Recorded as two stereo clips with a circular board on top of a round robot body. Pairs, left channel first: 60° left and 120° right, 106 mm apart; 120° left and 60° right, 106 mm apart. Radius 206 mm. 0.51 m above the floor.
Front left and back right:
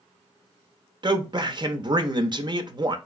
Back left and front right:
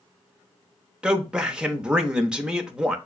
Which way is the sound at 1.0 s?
140° right.